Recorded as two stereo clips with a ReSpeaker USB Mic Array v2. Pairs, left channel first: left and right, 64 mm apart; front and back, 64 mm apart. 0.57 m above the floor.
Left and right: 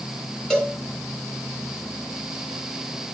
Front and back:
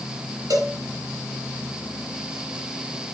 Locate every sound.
0.5 s a cowbell: 165° left, 3 m